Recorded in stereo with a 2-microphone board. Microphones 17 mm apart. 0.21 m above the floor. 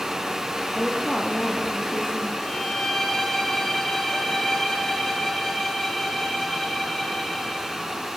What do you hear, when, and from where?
0.7 s a woman speaking: 65° left (ahead or behind), 6 m; by 2.3 s 60° left (ahead or behind), 7 m
2.4 s a violin: 30° left (ahead or behind), 9.5 m